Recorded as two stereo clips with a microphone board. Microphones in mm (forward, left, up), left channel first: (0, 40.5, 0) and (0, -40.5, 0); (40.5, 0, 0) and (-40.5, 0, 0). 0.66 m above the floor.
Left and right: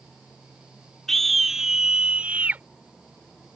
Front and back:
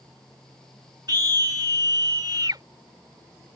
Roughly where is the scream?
Behind.